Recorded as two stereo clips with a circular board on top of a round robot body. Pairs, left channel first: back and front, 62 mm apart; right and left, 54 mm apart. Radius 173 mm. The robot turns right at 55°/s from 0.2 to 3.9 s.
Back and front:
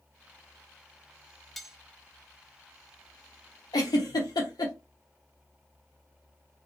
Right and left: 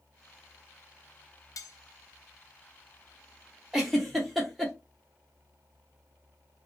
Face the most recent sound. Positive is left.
turn(degrees=180)